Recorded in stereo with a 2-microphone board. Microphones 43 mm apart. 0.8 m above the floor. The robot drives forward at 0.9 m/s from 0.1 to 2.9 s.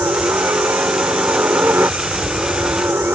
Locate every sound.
0.0 s a helicopter: 60° right (ahead or behind); by 3.2 s 65° right (ahead or behind)